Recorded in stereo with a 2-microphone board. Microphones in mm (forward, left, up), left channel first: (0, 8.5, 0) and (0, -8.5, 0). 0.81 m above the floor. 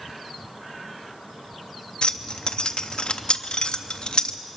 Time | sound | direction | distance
2.0 | keys jangling | 70° left (ahead or behind) | 0.6 m